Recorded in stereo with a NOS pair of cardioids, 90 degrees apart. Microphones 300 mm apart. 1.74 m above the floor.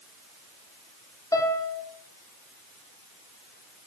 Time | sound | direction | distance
1.3 | a piano | 10° left | 3 m